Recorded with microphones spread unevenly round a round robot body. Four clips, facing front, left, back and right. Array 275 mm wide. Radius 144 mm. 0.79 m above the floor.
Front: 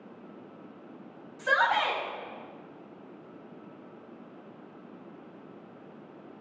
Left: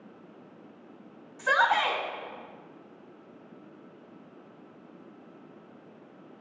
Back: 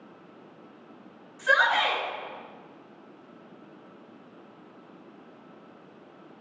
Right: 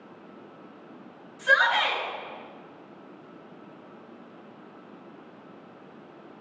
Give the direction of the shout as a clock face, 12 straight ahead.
10 o'clock.